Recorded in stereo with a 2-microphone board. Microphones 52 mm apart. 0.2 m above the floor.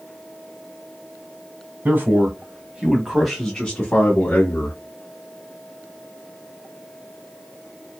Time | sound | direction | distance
1.9 | a man speaking | 40° right (ahead or behind) | 1.2 m